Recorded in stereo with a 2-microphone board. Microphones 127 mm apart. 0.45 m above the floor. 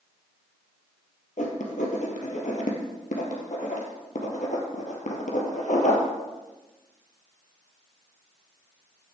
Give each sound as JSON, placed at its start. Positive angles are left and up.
{"t": 1.4, "sound": "writing", "side_deg": 85, "distance_m": 2.5}